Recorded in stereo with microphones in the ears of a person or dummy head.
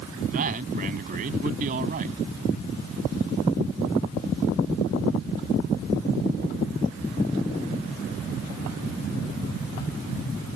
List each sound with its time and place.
0.3 s a man speaking: 40° right (ahead or behind)